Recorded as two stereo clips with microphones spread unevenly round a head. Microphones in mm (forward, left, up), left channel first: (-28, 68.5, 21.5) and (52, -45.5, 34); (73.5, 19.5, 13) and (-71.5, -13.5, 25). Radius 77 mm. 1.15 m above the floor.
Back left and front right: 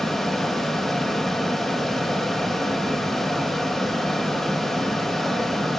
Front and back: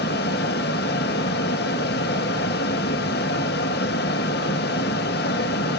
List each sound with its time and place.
0.0 s a fan: 35° left, 1.0 m